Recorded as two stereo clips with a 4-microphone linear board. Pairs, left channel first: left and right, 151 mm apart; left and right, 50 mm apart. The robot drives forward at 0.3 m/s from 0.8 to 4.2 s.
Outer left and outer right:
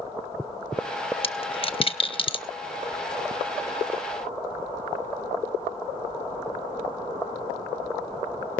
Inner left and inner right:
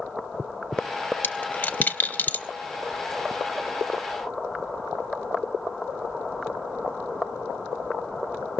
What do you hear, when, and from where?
1.2 s a dropped coin: 40° left (ahead or behind), 0.8 m; by 2.5 s 35° left (ahead or behind), 0.8 m